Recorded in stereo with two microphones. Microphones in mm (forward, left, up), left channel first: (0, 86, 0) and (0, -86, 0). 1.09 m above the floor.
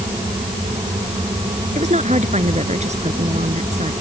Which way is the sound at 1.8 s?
40° right (ahead or behind).